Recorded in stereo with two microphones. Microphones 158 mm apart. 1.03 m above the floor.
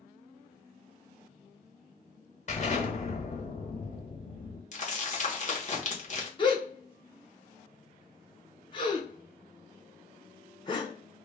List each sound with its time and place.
2.5 s an explosion: 45° left (ahead or behind), 0.9 m
4.7 s crumpling: 50° left (ahead or behind), 0.9 m
6.4 s a gasp: 30° left (ahead or behind), 0.7 m